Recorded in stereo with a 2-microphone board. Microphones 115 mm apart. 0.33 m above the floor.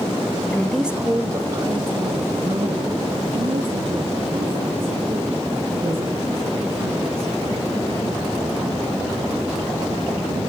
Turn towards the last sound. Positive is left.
turn(degrees=-60)  # may be behind; listen again after turning